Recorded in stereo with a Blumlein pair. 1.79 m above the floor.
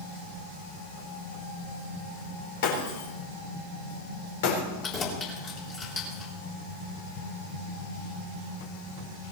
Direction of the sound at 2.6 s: 55° left.